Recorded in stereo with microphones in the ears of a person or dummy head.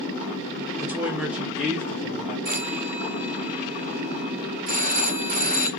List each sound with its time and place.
0.8 s a woman speaking: 15° right (ahead or behind), 0.6 m; by 2.4 s 10° left (ahead or behind), 0.9 m
2.5 s a phone ringing: 40° right (ahead or behind), 1.6 m